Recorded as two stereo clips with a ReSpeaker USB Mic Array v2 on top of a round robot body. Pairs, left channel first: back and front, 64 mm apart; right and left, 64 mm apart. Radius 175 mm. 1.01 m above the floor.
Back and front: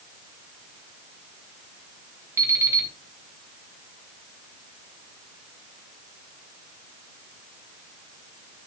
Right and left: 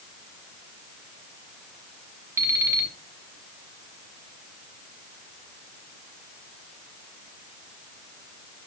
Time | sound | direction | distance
2.4 | an alarm clock | 40° left | 0.6 m